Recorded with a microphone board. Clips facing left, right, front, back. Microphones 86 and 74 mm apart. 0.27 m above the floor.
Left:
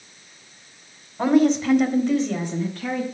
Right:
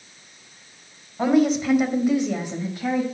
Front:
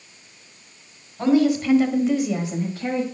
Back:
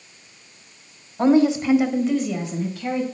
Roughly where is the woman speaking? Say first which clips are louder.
Left 1 dB, back 2 dB; behind.